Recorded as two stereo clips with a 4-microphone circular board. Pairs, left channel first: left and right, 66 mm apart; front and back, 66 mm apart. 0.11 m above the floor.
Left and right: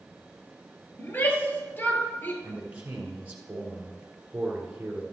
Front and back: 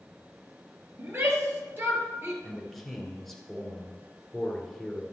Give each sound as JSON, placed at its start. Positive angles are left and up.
{"t": 1.0, "sound": "a shout", "azimuth_deg": 135, "distance_m": 2.0}
{"t": 2.4, "sound": "a man speaking", "azimuth_deg": -80, "distance_m": 1.8}